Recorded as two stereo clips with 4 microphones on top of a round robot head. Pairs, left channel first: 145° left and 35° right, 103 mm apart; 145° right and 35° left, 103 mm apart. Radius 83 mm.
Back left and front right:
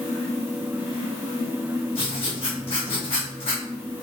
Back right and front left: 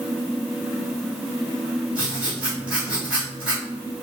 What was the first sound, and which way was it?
Writing, 115° left.